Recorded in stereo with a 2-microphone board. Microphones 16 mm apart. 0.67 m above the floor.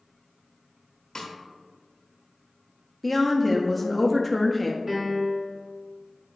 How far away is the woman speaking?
About 0.5 m.